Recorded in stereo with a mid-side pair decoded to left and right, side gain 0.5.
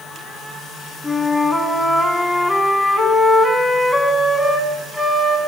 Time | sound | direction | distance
1.0 | a flute | 10° left | 5 m